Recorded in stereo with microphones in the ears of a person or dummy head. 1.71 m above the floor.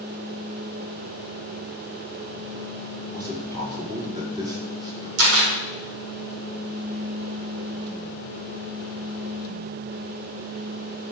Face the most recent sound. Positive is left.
turn(degrees=-85)